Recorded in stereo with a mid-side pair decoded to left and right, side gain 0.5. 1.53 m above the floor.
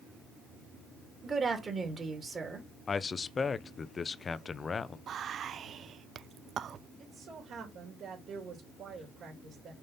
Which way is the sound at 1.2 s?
35° right.